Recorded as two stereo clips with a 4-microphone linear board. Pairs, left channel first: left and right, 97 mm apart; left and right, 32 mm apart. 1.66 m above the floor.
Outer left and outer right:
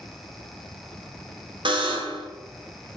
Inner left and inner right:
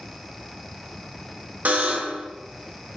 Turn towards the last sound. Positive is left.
turn(degrees=-55)  # may be behind; listen again after turning